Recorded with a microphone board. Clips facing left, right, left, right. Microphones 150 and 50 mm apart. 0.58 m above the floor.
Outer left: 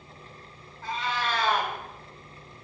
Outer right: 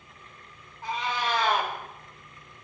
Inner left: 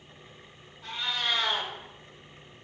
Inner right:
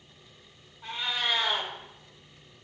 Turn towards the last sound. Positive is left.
turn(degrees=-15)  # may be behind; listen again after turning